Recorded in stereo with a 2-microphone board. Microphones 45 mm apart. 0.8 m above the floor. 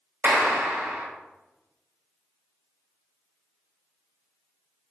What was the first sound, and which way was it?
A clap, 40° right (ahead or behind).